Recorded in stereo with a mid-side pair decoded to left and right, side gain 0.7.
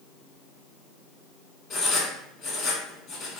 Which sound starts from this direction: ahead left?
Writing, at 1.7 s.